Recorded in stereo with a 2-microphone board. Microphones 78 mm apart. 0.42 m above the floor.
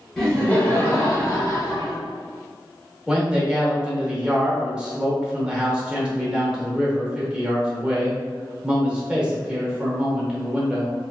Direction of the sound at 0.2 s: 5° left (ahead or behind).